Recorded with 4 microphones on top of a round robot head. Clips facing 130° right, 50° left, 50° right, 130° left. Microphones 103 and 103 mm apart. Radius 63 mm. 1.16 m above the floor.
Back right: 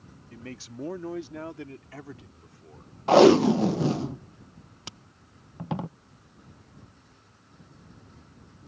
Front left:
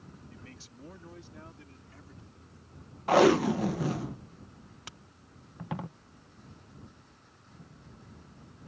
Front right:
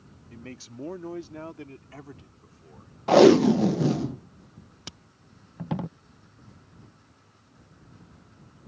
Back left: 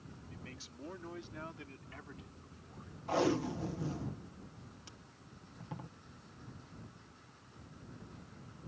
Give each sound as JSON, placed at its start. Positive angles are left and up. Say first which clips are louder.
{"t": 0.3, "sound": "a man speaking", "louder": "back right 10 dB, front right 13 dB", "azimuth_deg": -95}
{"t": 3.1, "sound": "tape being pulled", "louder": "back right 6 dB, front right 17 dB", "azimuth_deg": -65}